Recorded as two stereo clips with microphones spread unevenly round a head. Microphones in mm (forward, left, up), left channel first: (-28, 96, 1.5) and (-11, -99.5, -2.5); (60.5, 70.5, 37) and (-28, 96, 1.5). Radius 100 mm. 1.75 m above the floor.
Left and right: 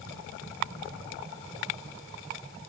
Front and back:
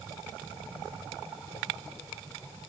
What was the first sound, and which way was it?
Only background noise.